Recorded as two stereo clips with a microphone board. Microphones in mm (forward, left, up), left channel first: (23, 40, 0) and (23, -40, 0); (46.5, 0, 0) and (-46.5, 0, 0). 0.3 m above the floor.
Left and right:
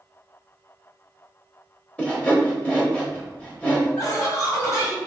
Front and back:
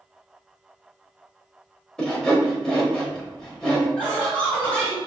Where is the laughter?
70° left, 1.8 m.